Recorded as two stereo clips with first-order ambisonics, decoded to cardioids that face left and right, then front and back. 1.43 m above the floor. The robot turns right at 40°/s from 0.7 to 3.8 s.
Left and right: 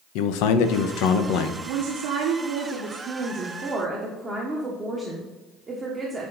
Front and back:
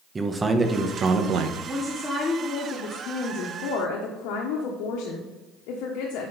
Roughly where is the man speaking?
Left.